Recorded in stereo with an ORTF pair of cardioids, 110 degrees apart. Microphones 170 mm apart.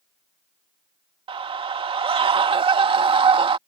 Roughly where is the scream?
Ahead right.